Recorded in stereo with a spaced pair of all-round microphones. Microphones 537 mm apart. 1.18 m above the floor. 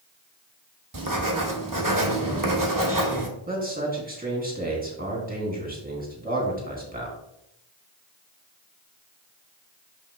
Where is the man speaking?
15° right (ahead or behind), 2.5 m.